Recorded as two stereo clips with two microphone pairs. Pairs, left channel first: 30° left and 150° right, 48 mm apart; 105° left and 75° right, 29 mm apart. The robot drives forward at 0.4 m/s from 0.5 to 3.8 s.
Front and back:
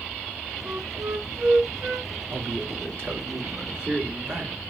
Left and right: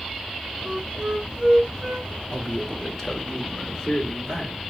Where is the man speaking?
155° right, 1.4 m; by 4.6 s 165° right, 1.8 m.